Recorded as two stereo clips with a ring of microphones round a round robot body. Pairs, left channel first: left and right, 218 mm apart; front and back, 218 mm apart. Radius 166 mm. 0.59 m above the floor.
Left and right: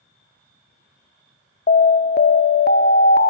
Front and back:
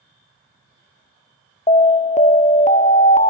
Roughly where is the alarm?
Ahead left.